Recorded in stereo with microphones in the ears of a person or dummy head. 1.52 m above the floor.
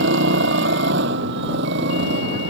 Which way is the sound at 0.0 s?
70° right (ahead or behind).